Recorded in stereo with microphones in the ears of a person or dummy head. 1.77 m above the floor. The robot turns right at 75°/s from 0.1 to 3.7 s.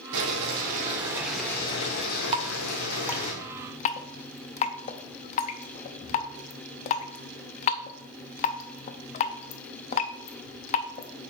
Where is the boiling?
95° right, 1.8 m; by 3.3 s 145° left, 1.8 m.